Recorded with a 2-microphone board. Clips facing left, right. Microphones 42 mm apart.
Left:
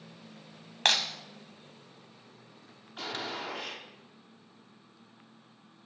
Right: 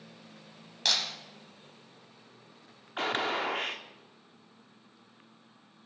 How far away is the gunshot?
About 0.6 m.